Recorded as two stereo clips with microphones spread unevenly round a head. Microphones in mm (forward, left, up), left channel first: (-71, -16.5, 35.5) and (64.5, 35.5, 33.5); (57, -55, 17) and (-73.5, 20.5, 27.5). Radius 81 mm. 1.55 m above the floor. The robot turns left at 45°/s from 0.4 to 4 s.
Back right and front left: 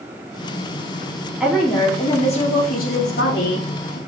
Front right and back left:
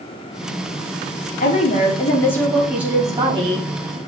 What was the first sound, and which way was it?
A woman speaking, 65° right.